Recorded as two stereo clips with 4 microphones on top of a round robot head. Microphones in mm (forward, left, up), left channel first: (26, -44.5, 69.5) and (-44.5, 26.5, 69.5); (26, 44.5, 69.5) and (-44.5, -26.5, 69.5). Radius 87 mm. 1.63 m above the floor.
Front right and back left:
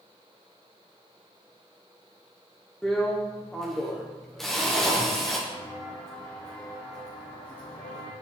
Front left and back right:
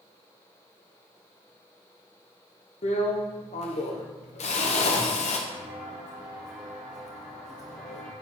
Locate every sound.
2.8 s a drill: 40° left, 1.3 m
5.5 s footsteps: 135° right, 1.8 m; by 8.1 s 20° right, 2.0 m